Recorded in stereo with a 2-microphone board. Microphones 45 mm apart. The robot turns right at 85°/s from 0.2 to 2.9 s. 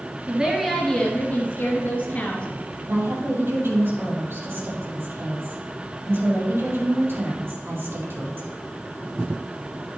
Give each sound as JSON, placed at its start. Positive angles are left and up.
{"t": 0.3, "sound": "a woman speaking", "azimuth_deg": -30, "distance_m": 2.5}
{"t": 2.9, "sound": "a woman speaking", "side_deg": -60, "distance_m": 5.0}